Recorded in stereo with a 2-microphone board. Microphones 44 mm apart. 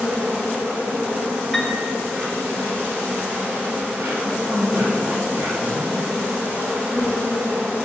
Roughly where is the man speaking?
Right.